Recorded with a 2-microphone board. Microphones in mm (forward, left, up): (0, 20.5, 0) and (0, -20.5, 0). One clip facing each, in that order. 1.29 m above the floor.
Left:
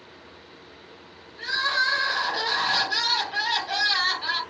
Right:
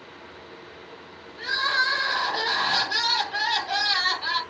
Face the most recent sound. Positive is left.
turn(degrees=-10)  # may be behind; listen again after turning